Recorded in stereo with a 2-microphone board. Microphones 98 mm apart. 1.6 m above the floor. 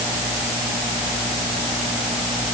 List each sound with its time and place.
Only background noise.